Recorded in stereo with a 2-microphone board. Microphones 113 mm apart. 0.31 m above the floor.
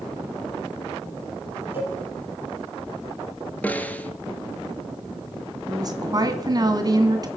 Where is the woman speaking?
35° right (ahead or behind), 2 m.